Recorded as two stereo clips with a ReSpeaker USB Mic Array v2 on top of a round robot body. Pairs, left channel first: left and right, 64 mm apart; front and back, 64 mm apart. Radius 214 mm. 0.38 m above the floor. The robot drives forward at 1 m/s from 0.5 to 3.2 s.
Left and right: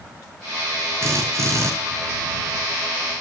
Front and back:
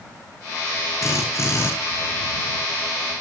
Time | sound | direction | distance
1.0 | a drill | 45° right | 9 m